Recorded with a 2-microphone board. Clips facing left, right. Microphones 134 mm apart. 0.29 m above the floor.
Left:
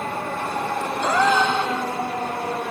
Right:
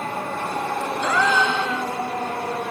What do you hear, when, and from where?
1.0 s a gasp: 35° left (ahead or behind), 0.7 m